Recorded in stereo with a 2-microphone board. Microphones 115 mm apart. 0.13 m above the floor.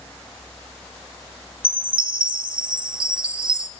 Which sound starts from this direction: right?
A chime, at 1.6 s.